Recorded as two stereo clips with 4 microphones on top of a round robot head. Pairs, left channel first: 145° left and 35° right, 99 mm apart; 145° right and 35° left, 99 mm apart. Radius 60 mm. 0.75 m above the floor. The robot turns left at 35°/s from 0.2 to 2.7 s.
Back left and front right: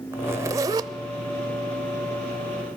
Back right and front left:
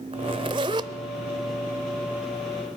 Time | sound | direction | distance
0.1 | a zipper | 25° left | 0.5 m